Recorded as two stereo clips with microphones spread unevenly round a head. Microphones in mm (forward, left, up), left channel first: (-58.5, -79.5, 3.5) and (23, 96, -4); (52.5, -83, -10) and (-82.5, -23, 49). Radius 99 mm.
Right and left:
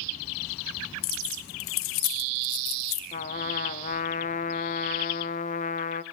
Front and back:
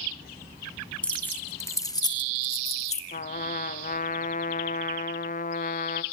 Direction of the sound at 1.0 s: 115° right.